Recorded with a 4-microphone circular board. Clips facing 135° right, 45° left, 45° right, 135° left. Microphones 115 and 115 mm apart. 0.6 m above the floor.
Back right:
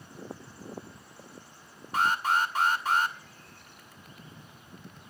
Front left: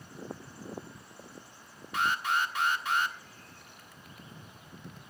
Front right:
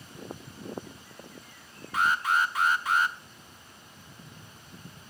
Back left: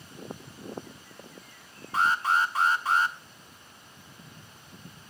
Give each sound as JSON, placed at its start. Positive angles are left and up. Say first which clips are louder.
{"t": 1.9, "sound": "an alarm", "louder": "back right 3 dB, back left 1 dB", "azimuth_deg": -175, "distance_m": 1.5}